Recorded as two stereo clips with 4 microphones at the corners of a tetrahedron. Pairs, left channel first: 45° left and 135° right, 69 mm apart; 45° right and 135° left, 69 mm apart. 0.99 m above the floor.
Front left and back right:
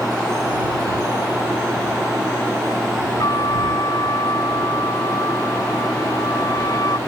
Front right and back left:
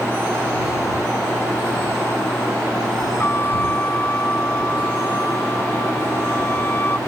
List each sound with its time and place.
3.2 s a trumpet: 15° left